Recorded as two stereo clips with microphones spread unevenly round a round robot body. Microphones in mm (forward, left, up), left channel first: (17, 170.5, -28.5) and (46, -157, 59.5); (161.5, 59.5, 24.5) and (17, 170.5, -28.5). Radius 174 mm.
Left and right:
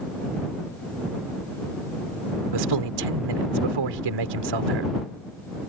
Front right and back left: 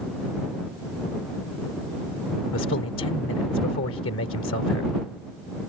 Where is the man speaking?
70° right.